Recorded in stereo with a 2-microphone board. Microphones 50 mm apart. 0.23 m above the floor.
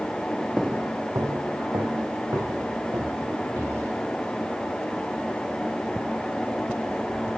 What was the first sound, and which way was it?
Footsteps, centre (ahead or behind).